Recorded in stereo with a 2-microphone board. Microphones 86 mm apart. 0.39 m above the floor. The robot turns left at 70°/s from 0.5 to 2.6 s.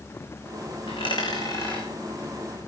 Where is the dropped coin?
80° left, 4 m; by 1.9 s 10° left (ahead or behind), 4 m.